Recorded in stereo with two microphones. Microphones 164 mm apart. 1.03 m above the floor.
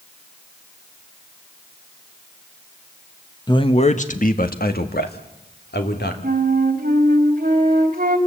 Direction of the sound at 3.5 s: 25° left (ahead or behind).